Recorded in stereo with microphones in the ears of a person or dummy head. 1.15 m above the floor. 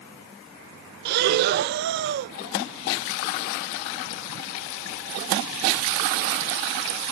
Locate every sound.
1.1 s breathing: 55° right (ahead or behind), 0.5 m